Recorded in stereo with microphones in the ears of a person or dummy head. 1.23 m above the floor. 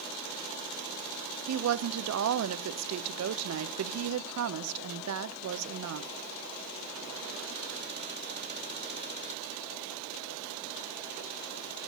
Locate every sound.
1.5 s a woman speaking: 80° right, 0.8 m